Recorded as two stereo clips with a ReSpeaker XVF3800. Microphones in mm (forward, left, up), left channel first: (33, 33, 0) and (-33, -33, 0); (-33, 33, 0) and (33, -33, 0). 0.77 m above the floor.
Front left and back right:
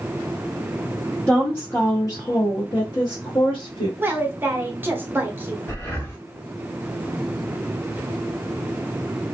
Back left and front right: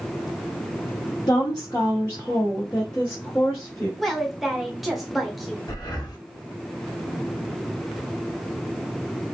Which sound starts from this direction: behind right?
A woman speaking, at 4.0 s.